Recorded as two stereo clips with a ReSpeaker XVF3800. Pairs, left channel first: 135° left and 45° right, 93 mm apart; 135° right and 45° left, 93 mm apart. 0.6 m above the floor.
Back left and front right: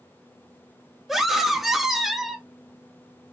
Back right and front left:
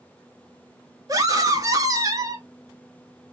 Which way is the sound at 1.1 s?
40° left.